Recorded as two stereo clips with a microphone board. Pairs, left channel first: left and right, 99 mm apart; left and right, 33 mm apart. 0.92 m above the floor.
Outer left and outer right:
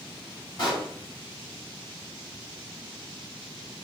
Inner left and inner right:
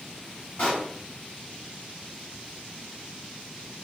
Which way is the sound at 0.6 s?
40° left (ahead or behind).